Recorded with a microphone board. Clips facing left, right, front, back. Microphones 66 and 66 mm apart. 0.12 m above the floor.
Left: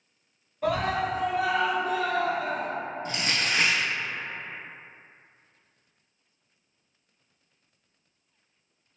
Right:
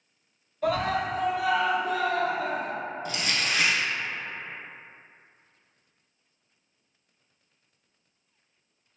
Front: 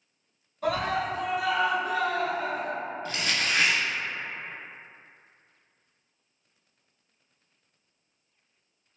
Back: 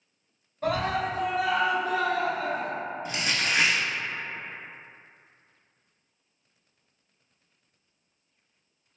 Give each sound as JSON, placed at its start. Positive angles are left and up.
{"t": 0.6, "sound": "a scream", "azimuth_deg": 160, "distance_m": 1.9}
{"t": 3.0, "sound": "crumpling", "azimuth_deg": 120, "distance_m": 0.7}